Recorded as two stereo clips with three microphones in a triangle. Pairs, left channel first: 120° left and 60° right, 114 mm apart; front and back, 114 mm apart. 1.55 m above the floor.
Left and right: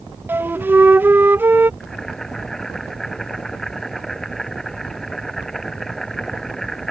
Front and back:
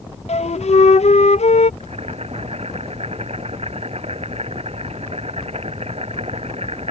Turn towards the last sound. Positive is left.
turn(degrees=-155)